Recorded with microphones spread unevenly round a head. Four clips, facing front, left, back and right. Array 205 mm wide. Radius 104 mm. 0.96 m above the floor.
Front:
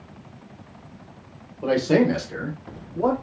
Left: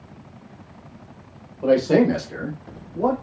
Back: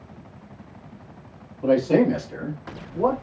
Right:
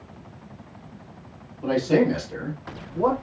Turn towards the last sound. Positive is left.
turn(degrees=-170)